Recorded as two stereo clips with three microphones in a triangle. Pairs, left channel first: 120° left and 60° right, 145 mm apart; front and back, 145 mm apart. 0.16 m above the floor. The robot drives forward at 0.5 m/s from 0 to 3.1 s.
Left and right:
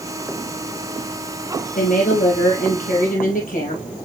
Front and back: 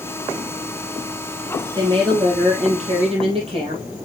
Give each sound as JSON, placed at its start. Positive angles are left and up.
{"t": 1.8, "sound": "a woman speaking", "azimuth_deg": 125, "distance_m": 4.5}